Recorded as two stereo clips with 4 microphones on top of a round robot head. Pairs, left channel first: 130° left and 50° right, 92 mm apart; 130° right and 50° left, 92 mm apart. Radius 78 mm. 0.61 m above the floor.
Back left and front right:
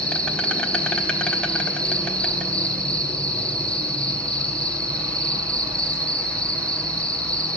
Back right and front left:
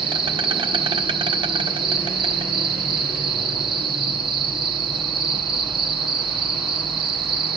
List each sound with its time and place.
0.0 s an insect: 50° left, 0.9 m